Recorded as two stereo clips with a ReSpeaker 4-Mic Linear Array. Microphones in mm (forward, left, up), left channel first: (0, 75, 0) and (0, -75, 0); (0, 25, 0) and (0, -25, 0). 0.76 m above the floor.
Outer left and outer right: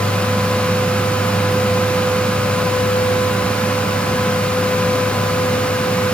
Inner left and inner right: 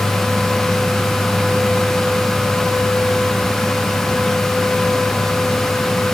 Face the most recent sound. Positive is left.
No sound to turn to.